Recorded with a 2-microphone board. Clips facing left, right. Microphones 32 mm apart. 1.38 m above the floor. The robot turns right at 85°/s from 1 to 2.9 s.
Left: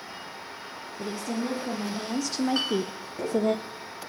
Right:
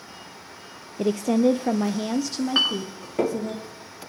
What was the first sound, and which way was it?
A woman speaking, 115° right.